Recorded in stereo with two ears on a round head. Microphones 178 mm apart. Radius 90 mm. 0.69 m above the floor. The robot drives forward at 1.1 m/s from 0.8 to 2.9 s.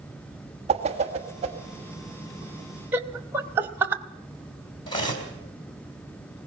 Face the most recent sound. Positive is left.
turn(degrees=25)  # may be behind; listen again after turning